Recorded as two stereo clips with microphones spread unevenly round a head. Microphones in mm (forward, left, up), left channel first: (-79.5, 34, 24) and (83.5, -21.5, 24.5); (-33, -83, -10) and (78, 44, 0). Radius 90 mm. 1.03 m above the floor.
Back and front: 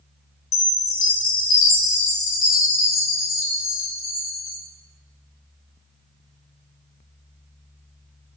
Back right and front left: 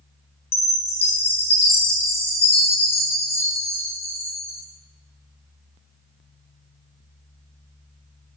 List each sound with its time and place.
0.5 s a chime: 170° left, 3 m